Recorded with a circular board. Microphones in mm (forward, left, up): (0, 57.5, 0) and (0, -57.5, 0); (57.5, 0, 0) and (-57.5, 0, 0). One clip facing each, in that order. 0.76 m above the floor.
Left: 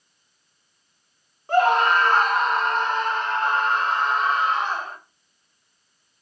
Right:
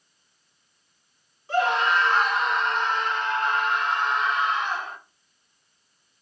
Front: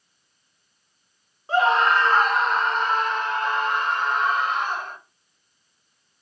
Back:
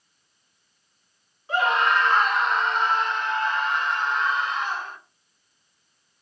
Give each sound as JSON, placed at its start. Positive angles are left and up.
{"t": 1.5, "sound": "a scream", "azimuth_deg": 55, "distance_m": 2.0}